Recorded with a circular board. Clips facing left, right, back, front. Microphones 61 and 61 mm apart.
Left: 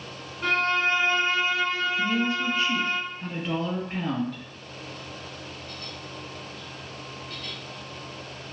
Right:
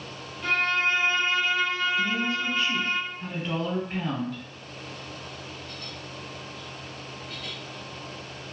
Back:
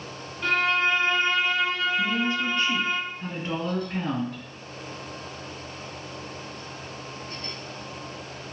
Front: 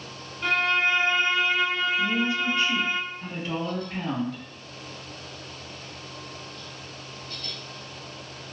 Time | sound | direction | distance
0.4 | a violin | 85° left | 1.3 m
2.0 | a woman speaking | straight behind | 1.4 m